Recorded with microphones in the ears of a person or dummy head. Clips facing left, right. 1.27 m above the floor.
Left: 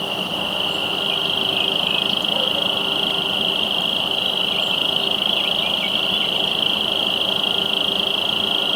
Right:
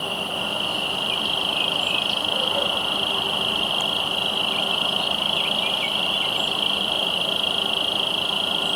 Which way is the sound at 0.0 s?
20° left (ahead or behind).